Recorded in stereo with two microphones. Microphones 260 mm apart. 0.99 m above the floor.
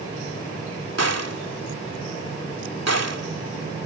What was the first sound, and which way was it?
A gunshot, 80° right.